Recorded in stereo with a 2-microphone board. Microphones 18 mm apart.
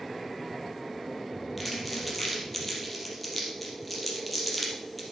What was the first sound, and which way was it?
Crumpling, 5° left (ahead or behind).